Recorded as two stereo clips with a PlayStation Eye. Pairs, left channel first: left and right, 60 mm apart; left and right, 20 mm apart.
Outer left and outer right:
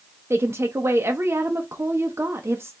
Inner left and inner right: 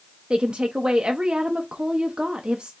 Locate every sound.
0.3 s a woman speaking: 50° right (ahead or behind), 0.6 m